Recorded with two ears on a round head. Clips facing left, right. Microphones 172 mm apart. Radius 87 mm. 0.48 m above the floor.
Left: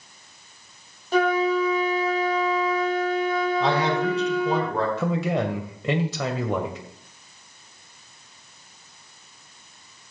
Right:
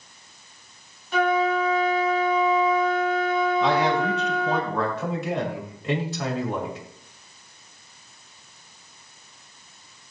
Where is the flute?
30° left (ahead or behind), 1.6 m.